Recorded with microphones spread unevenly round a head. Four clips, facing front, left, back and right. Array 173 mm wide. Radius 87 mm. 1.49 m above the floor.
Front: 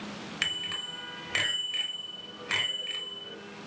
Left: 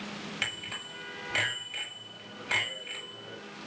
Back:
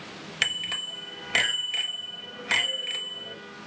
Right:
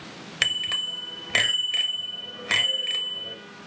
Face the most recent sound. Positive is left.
turn(degrees=-115)